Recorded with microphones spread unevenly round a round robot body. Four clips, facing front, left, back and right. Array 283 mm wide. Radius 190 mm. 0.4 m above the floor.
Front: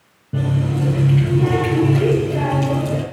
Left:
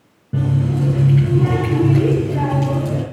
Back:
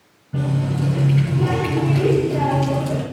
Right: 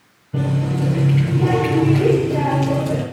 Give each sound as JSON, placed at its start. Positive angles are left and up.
{"t": 0.3, "sound": "a running tap", "azimuth_deg": 70, "distance_m": 4.5}